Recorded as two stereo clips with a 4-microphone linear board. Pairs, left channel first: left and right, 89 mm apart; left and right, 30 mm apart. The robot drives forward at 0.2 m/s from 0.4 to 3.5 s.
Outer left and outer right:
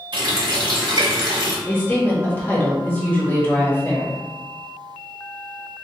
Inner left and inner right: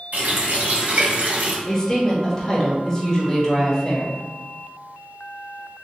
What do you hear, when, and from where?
0.1 s a running tap: 60° right (ahead or behind), 1.1 m
1.7 s a woman speaking: 20° left (ahead or behind), 0.9 m